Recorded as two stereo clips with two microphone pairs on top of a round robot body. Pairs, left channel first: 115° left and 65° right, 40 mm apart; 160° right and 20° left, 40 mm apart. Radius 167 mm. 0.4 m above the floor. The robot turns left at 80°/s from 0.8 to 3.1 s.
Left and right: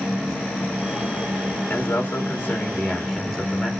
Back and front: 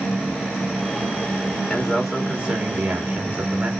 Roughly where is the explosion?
No explosion in this recording.